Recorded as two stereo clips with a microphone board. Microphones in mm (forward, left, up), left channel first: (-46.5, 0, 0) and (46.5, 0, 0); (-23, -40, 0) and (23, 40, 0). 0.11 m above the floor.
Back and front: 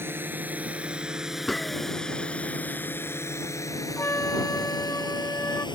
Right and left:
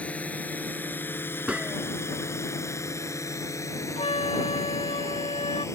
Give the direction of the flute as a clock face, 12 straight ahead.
4 o'clock.